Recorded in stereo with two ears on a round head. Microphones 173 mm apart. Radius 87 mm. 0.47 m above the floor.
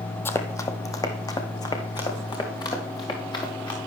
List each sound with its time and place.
0.2 s running footsteps: 10° left (ahead or behind), 0.8 m; by 3.8 s 25° left (ahead or behind), 3 m